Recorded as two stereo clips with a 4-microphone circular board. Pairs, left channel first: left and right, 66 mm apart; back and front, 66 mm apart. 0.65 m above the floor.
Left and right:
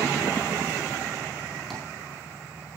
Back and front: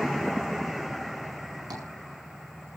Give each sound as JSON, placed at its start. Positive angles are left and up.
{"t": 1.7, "sound": "tapping", "azimuth_deg": 5, "distance_m": 9.0}